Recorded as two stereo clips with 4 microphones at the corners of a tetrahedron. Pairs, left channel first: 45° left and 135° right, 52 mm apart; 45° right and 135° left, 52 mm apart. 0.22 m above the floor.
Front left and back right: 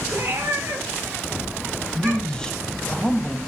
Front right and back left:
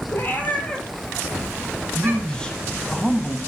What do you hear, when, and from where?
0.1 s a cat meowing: 90° right, 1.5 m; by 2.5 s 175° left, 2 m
1.9 s a man speaking: straight ahead, 1.0 m